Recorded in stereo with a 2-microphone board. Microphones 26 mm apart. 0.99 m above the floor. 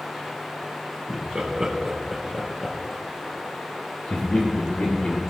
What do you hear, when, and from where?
1.1 s laughter: 45° right (ahead or behind), 1.2 m; by 5.2 s 70° left (ahead or behind), 2.5 m